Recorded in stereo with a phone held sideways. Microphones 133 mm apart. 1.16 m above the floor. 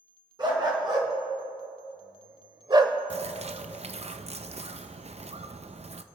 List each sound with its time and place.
0.4 s a dog barking: 35° right (ahead or behind), 3 m; by 3.0 s 25° right (ahead or behind), 1.0 m
3.1 s a bird: 50° right (ahead or behind), 0.6 m